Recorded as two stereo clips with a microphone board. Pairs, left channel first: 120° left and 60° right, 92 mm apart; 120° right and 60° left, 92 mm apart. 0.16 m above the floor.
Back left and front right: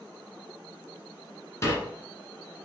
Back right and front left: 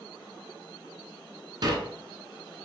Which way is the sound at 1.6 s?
70° left.